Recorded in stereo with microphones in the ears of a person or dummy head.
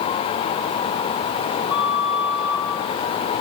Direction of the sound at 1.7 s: 10° right (ahead or behind).